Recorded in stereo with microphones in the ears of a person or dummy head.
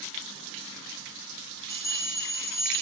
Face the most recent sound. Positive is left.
turn(degrees=20)  # may be behind; listen again after turning